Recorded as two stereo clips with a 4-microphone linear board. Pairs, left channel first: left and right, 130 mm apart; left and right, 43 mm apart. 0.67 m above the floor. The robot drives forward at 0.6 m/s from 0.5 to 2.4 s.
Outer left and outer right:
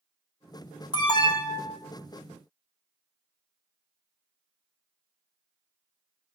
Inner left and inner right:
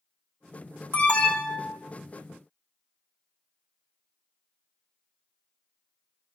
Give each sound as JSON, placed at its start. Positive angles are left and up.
{"t": 0.9, "sound": "an alarm", "side_deg": 35, "distance_m": 2.0}